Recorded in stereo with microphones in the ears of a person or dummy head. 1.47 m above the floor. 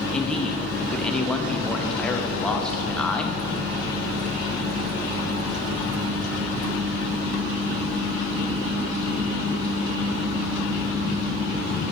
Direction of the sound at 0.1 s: 5° left (ahead or behind).